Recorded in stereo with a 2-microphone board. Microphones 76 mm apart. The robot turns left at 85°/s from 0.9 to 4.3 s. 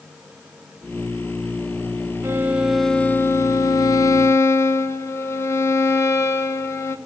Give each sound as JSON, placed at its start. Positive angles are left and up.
{"t": 2.2, "sound": "a violin", "azimuth_deg": -135, "distance_m": 0.9}